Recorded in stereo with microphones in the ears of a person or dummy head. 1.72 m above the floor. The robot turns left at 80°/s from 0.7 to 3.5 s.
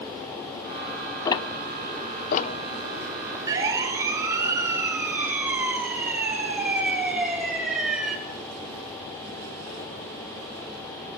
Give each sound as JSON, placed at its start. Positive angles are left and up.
{"t": 1.2, "sound": "ticking", "side_deg": 25, "distance_m": 0.7}
{"t": 3.5, "sound": "a siren", "side_deg": -20, "distance_m": 4.5}